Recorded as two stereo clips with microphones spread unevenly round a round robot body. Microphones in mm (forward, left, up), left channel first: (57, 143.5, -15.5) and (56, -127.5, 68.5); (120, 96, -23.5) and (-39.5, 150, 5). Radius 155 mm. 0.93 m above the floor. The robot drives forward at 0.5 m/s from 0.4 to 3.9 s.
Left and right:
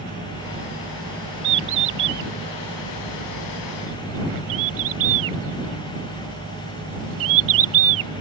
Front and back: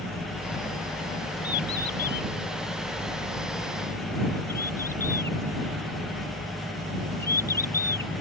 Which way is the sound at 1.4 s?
75° right.